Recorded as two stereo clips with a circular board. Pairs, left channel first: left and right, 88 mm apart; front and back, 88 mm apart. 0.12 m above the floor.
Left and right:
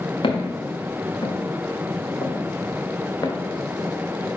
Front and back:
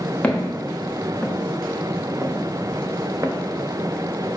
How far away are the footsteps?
About 2 m.